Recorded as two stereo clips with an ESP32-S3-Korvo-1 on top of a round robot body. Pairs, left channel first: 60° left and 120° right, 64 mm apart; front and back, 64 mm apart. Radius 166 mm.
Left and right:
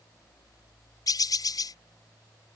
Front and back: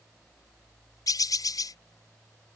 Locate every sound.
1.1 s a bird: 30° left